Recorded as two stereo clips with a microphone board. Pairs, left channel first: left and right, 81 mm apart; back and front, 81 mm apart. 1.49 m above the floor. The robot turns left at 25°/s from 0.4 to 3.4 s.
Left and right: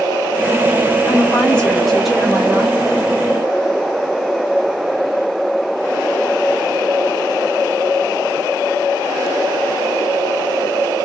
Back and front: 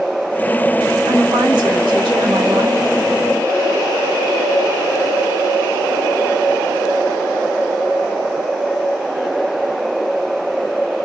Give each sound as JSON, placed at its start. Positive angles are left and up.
{"t": 1.1, "sound": "a woman speaking", "azimuth_deg": 25, "distance_m": 1.8}